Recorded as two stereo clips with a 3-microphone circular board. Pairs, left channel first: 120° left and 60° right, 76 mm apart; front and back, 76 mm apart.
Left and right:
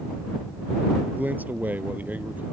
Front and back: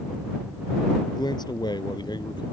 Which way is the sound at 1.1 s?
5° left.